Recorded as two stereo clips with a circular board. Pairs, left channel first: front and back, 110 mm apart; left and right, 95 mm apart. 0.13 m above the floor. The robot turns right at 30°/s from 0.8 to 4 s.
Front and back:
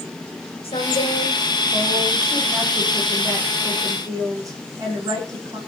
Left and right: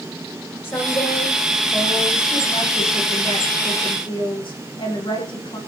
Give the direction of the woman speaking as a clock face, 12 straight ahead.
11 o'clock.